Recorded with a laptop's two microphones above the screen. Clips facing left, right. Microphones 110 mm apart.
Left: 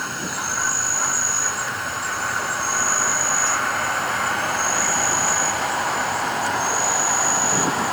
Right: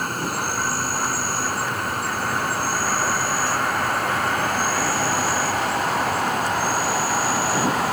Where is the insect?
50° right (ahead or behind).